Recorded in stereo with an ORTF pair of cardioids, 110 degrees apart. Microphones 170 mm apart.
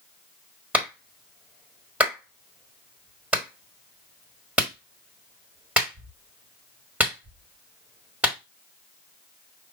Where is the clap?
10° right, 1.4 m.